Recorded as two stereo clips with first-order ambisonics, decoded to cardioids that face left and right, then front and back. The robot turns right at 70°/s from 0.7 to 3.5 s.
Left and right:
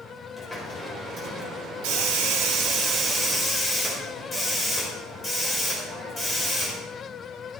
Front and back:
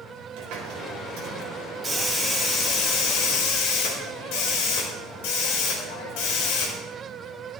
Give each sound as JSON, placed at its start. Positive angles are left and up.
{"t": 0.4, "sound": "a hiss", "azimuth_deg": 180, "distance_m": 5.0}